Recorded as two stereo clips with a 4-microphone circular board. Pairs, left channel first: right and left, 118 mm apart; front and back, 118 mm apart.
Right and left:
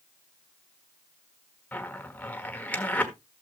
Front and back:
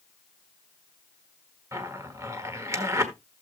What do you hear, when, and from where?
1.7 s a zipper: 155° right, 1.3 m